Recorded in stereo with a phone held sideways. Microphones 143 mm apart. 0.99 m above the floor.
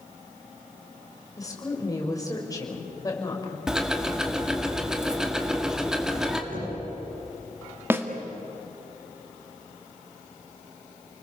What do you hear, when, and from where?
1.4 s a woman speaking: 25° left (ahead or behind), 5.5 m
3.7 s ticking: 5° right (ahead or behind), 1.8 m
6.5 s knocking: 80° right, 10 m
7.9 s a snare drum: 15° right (ahead or behind), 1.9 m